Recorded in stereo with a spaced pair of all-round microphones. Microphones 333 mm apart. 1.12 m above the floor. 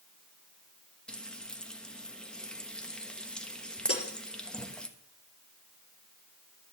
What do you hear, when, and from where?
1.1 s frying: centre (ahead or behind), 1.2 m
3.9 s breaking glass: 45° left (ahead or behind), 4 m